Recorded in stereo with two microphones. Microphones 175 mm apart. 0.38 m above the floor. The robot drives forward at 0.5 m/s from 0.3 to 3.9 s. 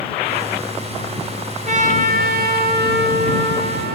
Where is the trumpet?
45° right (ahead or behind), 1.1 m; by 4.0 s 65° right (ahead or behind), 0.9 m.